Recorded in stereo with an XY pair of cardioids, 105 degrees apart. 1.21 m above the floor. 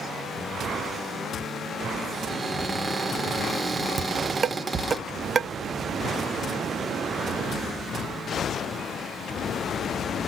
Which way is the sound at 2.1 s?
30° right.